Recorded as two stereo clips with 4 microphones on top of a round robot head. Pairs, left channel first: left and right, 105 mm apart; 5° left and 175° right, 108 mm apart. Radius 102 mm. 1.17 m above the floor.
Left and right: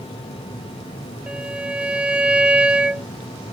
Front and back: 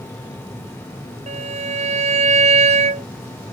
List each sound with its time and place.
1.3 s a violin: 170° right